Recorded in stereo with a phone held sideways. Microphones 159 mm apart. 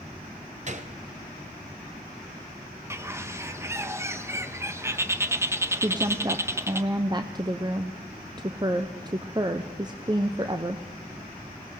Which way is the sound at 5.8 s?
25° right (ahead or behind).